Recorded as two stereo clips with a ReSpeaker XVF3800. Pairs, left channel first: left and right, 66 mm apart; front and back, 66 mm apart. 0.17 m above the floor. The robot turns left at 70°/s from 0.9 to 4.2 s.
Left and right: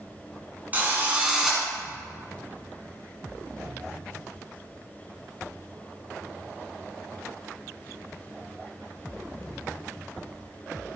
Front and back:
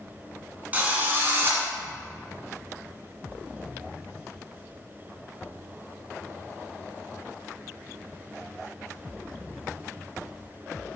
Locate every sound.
0.7 s a drill: 130° right, 1.6 m; by 1.6 s straight behind, 1.6 m